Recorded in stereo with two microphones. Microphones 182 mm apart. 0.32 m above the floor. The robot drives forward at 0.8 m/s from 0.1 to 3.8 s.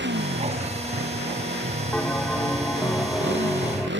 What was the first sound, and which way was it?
A motorcycle, 80° right.